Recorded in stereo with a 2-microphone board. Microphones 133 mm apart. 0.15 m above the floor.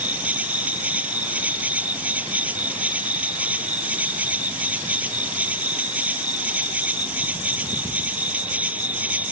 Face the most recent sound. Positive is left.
turn(degrees=-10)  # may be behind; listen again after turning